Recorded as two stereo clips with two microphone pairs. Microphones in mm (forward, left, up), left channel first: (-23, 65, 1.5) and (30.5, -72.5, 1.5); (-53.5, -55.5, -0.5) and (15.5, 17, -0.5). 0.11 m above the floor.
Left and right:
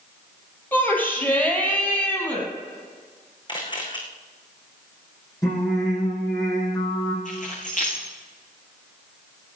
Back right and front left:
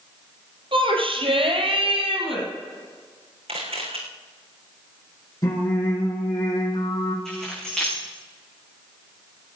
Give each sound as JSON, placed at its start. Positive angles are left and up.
{"t": 0.7, "sound": "a shout", "azimuth_deg": 35, "distance_m": 4.0}
{"t": 3.5, "sound": "a camera shutter", "azimuth_deg": 55, "distance_m": 3.0}
{"t": 5.4, "sound": "singing", "azimuth_deg": 175, "distance_m": 5.0}
{"t": 7.2, "sound": "keys jangling", "azimuth_deg": 140, "distance_m": 6.0}